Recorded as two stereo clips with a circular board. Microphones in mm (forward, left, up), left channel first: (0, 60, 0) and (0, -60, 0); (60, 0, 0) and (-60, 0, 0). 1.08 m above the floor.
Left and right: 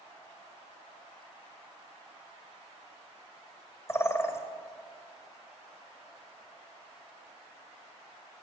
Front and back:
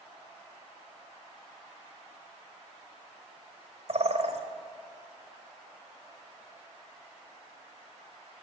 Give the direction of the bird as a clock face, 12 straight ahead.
7 o'clock.